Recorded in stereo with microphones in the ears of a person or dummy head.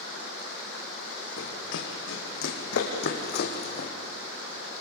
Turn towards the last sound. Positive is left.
turn(degrees=40)  # may be behind; listen again after turning